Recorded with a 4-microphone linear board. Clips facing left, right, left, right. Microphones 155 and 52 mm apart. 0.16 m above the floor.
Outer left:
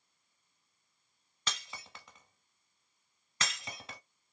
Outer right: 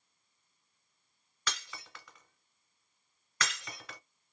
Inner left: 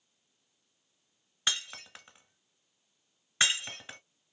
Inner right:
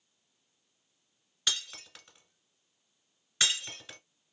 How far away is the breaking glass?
About 1.0 m.